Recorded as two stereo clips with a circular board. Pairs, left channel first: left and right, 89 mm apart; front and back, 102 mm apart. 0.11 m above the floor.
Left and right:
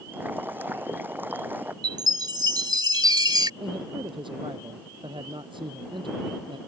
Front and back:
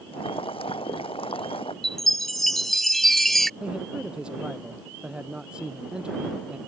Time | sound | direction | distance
0.1 | boiling | 25° right | ?
1.8 | a chime | 85° right | ?
3.6 | a man speaking | 100° right | ?